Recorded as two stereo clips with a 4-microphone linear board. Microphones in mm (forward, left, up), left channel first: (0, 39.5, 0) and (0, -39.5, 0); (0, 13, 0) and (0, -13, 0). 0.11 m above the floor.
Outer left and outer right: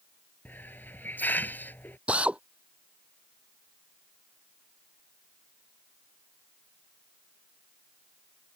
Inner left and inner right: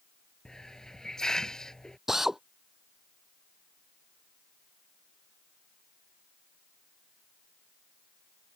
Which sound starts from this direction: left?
A hiss, at 0.5 s.